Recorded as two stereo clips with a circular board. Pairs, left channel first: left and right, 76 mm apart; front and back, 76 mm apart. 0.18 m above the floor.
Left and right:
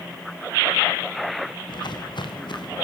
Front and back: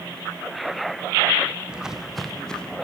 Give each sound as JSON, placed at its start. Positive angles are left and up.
{"t": 1.7, "sound": "footsteps", "azimuth_deg": 100, "distance_m": 1.9}